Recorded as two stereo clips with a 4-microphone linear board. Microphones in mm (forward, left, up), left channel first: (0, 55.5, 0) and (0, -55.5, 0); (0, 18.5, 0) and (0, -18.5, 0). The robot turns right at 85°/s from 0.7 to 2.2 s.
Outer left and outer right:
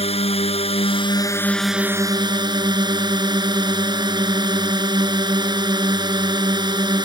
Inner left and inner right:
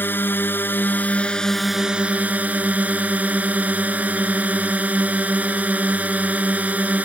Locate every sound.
0.0 s a drone: 100° left; by 7.1 s 135° right